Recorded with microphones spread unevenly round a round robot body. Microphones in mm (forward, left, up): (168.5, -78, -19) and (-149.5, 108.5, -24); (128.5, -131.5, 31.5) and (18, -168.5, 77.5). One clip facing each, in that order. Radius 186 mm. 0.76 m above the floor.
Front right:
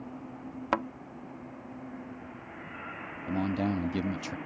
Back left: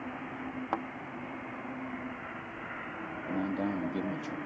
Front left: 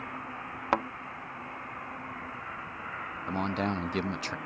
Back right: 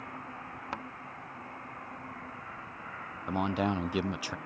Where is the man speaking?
55° right.